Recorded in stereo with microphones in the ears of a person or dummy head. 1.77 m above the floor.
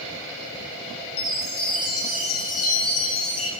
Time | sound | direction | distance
1.2 | a chime | 60° left (ahead or behind) | 2 m